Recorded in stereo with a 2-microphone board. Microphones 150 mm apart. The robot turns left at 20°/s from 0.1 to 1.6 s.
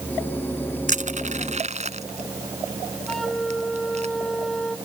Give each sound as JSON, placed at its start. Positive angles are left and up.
{"t": 0.9, "sound": "crushing", "side_deg": -60}
{"t": 3.1, "sound": "a flute", "side_deg": 0}